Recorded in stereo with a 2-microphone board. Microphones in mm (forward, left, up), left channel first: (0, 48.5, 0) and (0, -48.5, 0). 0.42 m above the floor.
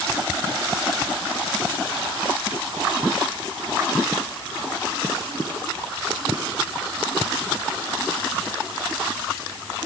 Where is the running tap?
I don't hear a running tap.